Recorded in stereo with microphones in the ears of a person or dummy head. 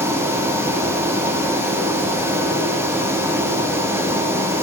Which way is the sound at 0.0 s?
15° right (ahead or behind).